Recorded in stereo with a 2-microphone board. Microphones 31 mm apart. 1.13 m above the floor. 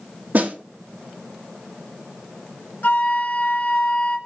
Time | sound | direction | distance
0.3 | a snare drum | 80° right | 2 m
2.8 | a flute | 65° left (ahead or behind) | 2.5 m